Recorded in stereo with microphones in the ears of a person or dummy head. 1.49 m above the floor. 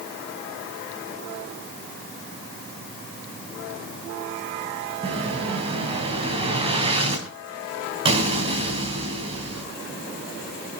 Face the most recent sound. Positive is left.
turn(degrees=-30)  # may be behind; listen again after turning